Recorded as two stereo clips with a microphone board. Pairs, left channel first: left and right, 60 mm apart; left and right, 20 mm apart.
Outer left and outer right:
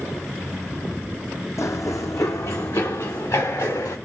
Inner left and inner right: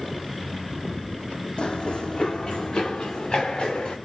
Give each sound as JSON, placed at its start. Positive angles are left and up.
{"t": 1.6, "sound": "running footsteps", "side_deg": 60, "distance_m": 0.7}